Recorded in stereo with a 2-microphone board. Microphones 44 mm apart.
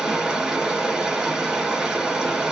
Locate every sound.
0.0 s running water: 10° right (ahead or behind), 1.5 m